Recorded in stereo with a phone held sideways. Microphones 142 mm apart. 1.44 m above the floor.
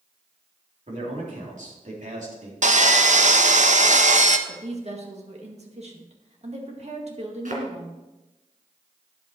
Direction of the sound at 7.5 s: 65° right (ahead or behind).